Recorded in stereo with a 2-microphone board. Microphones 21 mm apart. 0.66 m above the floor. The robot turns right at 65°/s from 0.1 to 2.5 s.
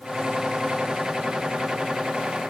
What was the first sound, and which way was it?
Only background noise.